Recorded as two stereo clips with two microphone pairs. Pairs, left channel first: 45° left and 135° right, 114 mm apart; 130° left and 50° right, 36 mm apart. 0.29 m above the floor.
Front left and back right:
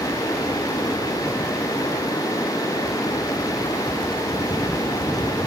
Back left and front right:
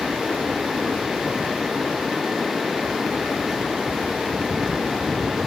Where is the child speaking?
No child speaking in this recording.